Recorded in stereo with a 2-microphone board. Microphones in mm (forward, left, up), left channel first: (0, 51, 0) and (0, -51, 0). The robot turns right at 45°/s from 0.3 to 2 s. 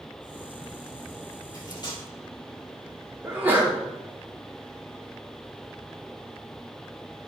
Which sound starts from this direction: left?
Cutlery clinking, at 1.5 s.